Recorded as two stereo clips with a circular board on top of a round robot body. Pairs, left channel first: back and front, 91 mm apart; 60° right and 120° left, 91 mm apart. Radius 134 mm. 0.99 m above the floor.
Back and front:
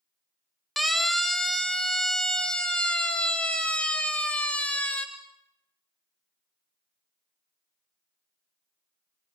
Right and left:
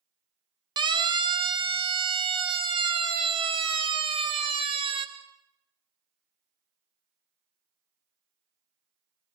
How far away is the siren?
About 3.5 m.